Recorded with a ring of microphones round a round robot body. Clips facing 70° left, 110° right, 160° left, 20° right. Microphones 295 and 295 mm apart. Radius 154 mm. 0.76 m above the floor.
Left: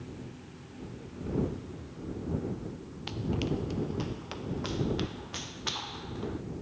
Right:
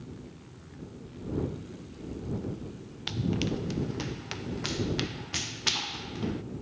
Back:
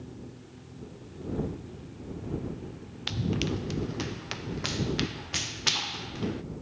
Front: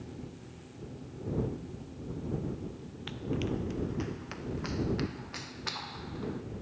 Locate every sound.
3.1 s running footsteps: 170° right; by 6.4 s 160° right